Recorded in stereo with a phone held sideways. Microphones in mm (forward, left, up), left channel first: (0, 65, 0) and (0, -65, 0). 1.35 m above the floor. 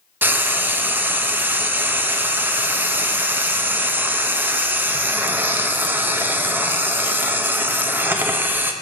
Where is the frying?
15° right (ahead or behind), 0.5 m.